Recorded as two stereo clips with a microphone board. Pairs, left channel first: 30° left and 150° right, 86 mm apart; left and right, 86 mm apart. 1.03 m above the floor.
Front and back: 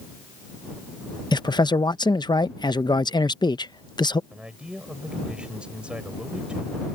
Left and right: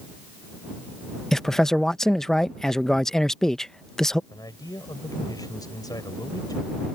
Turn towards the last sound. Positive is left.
turn(degrees=130)